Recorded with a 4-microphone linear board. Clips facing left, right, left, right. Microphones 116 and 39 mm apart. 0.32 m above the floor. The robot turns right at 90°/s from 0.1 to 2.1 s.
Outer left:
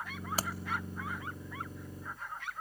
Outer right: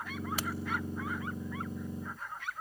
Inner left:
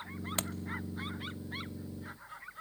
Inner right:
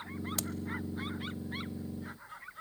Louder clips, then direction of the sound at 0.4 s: Outer left 3 dB, inner left 5 dB; 40° left (ahead or behind).